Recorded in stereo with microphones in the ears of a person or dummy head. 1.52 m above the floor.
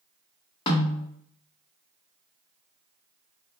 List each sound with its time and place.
0.7 s a snare drum: 30° left (ahead or behind), 0.7 m